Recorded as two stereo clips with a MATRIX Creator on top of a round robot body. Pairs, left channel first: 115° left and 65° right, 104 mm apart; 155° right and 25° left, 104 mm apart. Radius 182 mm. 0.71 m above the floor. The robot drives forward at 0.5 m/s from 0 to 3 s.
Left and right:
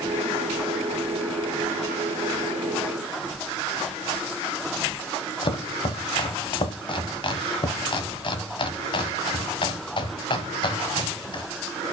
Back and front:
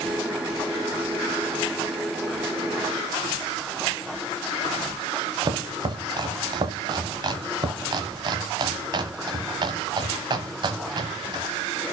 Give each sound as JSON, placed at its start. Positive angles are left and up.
{"t": 5.4, "sound": "chopping", "azimuth_deg": 70, "distance_m": 0.9}